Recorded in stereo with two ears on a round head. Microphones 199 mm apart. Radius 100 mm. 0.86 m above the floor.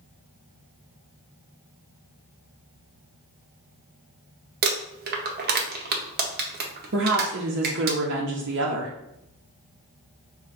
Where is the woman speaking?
55° right (ahead or behind), 0.7 m.